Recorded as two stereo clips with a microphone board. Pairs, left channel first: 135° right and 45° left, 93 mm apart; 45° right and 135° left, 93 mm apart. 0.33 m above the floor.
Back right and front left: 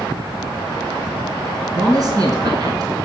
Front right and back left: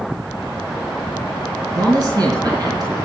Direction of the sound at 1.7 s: 90° left.